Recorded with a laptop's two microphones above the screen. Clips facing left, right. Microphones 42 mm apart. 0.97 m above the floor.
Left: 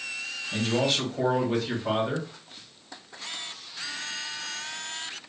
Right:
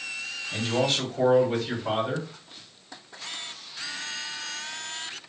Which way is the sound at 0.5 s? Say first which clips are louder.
Even; centre (ahead or behind).